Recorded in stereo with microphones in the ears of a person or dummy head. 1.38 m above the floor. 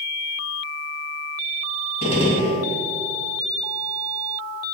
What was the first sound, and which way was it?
A gunshot, 30° left (ahead or behind).